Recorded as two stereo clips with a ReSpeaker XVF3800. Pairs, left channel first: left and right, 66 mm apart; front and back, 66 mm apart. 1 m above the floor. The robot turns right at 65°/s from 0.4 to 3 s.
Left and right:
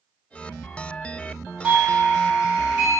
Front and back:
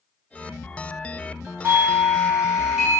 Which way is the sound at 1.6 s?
170° right.